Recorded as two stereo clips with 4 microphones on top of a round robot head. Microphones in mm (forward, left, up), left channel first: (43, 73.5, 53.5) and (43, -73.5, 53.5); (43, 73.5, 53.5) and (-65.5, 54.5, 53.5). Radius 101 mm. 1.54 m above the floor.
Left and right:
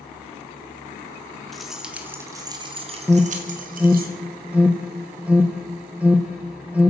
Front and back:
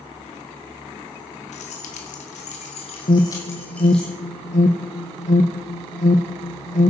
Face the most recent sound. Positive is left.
turn(degrees=-10)